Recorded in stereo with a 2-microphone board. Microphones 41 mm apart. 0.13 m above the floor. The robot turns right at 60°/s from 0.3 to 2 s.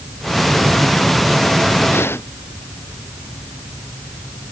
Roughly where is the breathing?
Left.